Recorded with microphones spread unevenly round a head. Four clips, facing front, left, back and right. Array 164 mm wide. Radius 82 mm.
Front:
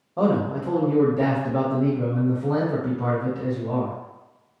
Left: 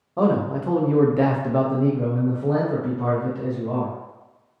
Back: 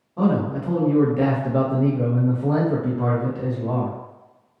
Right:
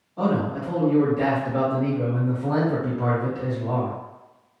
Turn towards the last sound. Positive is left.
turn(degrees=-160)